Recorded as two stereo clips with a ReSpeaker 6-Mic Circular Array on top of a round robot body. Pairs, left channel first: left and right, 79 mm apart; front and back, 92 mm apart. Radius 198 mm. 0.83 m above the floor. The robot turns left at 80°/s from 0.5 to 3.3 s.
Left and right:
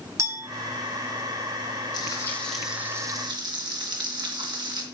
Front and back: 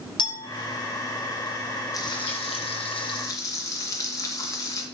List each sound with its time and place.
0.2 s a clink: 35° right, 3 m
1.9 s frying: 55° left, 2 m; by 4.8 s 55° right, 2 m